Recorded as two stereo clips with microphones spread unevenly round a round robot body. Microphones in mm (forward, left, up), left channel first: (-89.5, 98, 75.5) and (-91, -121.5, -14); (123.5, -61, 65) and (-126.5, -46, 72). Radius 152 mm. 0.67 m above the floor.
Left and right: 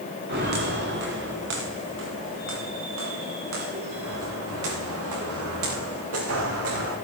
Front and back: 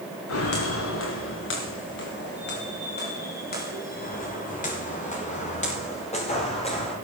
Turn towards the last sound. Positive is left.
turn(degrees=-70)